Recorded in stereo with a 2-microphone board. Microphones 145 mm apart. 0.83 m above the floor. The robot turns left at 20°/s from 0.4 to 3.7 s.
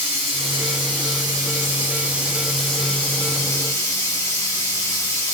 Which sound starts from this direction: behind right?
Running water, at 0.0 s.